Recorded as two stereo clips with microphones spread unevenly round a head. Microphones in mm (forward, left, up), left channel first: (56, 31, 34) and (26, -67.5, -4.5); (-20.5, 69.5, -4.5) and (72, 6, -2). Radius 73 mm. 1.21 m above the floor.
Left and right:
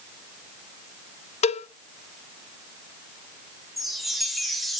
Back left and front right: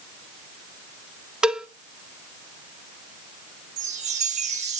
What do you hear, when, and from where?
1.4 s a cowbell: 50° left, 0.7 m
3.8 s a chime: 20° right, 1.8 m